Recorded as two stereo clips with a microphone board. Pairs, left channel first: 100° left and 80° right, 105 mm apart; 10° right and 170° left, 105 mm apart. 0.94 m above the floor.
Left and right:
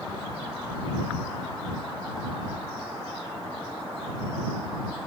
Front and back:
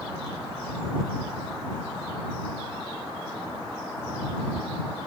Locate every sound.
Only background noise.